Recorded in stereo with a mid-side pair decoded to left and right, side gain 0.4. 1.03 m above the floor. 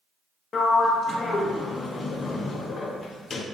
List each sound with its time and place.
0.5 s a sliding door: 55° left, 0.6 m